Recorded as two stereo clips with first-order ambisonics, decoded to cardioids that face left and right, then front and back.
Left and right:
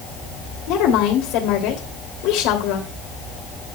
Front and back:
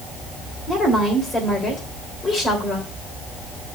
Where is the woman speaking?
75° left, 3 m.